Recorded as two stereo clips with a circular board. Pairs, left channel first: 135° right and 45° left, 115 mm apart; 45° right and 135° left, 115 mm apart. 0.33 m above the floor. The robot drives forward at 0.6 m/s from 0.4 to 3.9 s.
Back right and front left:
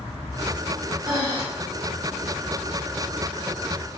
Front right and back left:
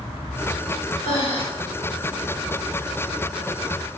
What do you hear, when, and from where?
1.0 s breathing: 10° right, 1.9 m